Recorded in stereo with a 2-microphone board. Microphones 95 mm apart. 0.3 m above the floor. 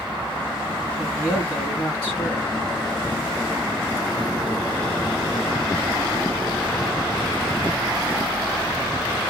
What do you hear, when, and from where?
1.0 s a man speaking: 10° left (ahead or behind), 2.5 m